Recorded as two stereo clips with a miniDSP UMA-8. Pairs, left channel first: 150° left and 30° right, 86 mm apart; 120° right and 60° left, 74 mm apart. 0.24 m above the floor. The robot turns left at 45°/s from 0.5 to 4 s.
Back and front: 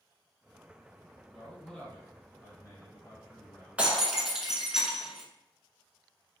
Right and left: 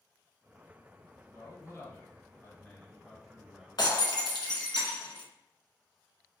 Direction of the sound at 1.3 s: 115° right.